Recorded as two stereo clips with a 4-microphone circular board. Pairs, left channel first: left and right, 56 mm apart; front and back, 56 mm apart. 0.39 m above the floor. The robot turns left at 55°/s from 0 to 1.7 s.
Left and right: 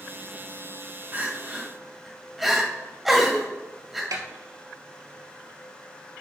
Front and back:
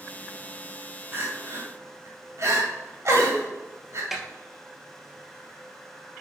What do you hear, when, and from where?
1.1 s crying: 140° right, 2 m; by 4.0 s 175° right, 2 m
4.1 s a snare drum: 95° right, 1.5 m